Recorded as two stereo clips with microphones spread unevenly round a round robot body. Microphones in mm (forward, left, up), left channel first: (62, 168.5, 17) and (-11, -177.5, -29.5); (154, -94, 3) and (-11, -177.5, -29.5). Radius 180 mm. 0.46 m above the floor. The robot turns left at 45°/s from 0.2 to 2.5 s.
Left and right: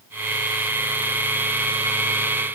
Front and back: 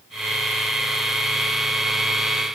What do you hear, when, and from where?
Only background noise.